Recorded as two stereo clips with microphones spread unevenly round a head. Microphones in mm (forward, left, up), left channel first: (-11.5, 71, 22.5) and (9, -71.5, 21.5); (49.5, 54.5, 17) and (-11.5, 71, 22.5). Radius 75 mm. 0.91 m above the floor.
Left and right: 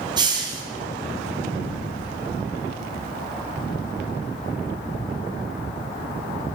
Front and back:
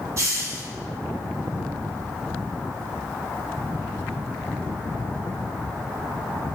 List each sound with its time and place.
0.2 s a hiss: 140° right, 0.7 m